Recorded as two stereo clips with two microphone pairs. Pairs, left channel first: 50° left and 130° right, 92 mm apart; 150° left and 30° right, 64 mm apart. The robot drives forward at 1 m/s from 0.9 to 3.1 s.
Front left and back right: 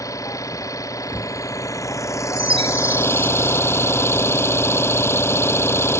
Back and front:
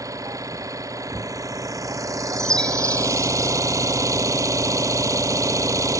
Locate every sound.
0.0 s an engine running: 5° right; by 6.0 s 10° right
2.4 s a chime: 130° right; by 3.6 s 140° right